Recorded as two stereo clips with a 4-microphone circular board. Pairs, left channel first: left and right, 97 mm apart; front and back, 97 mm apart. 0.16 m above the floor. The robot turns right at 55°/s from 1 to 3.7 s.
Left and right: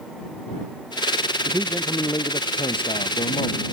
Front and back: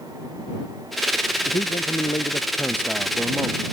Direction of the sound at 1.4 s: Straight ahead.